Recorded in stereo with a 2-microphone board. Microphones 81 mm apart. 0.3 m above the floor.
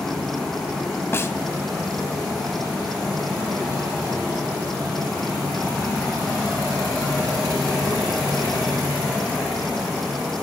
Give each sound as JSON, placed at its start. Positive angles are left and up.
{"t": 1.1, "sound": "a snare drum", "side_deg": 30, "distance_m": 1.4}